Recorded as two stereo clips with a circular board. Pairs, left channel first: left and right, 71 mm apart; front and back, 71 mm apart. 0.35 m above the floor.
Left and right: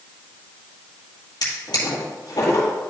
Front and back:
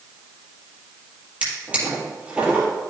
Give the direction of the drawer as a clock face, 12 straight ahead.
8 o'clock.